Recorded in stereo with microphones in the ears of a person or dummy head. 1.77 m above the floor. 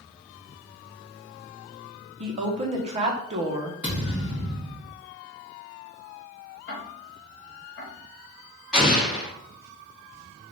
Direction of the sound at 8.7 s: Centre (ahead or behind).